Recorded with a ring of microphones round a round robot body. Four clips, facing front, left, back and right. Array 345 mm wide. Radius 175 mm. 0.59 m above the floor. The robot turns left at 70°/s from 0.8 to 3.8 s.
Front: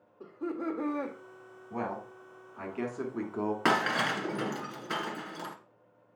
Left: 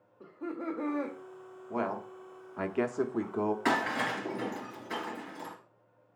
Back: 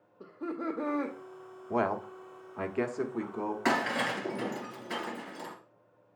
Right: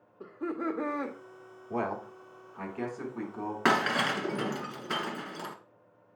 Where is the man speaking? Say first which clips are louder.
Right 1 dB, back 6 dB; 170° right, 1.2 m; by 3.5 s 60° left, 1.2 m.